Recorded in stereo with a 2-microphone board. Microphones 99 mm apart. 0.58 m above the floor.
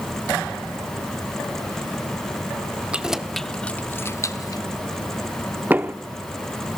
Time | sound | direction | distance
2.9 | keys jangling | 10° right (ahead or behind) | 1.0 m
5.7 | knocking | 20° right (ahead or behind) | 0.6 m